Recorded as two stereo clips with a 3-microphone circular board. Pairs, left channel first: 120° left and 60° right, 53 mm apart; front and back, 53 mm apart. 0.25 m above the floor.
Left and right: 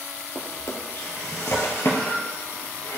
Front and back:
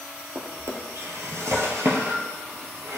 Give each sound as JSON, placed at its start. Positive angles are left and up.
{"t": 0.3, "sound": "a drawer", "azimuth_deg": 150, "distance_m": 1.4}